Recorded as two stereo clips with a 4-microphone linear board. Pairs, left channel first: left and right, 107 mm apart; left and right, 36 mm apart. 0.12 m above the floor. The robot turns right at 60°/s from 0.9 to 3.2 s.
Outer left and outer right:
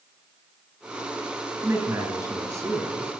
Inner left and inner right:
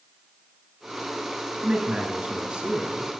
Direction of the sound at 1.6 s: 20° right (ahead or behind).